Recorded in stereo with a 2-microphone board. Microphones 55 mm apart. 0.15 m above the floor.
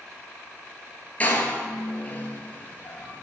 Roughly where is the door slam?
Left.